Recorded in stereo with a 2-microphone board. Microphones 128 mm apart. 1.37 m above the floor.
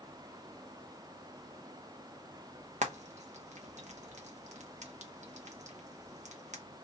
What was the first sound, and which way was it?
Frying, 70° right (ahead or behind).